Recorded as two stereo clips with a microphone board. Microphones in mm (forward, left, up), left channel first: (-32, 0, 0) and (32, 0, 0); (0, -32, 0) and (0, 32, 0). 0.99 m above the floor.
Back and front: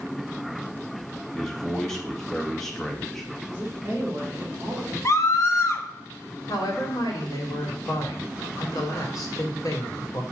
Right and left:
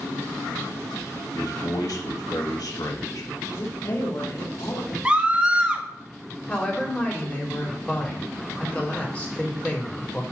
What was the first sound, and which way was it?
A man speaking, 95° right.